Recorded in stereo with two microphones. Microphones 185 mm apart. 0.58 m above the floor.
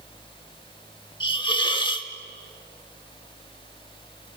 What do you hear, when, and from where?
1.2 s a hiss: 25° left (ahead or behind), 1.3 m